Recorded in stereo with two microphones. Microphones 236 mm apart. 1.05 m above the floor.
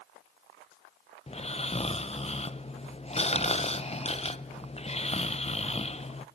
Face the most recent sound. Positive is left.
turn(degrees=25)  # may be behind; listen again after turning